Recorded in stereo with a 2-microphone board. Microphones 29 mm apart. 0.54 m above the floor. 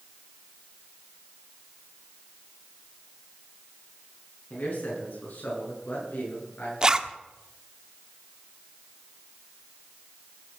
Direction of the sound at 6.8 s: 25° right (ahead or behind).